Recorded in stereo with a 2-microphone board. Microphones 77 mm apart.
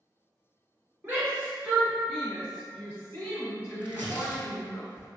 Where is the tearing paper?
25° left (ahead or behind), 1.2 m.